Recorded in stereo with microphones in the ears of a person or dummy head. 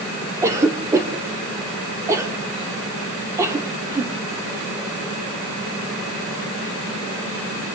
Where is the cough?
15° right (ahead or behind), 3 m.